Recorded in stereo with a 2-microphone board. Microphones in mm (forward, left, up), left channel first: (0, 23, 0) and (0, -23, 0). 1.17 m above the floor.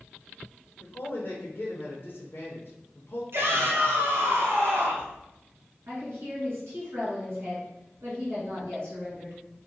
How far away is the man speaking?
About 0.6 m.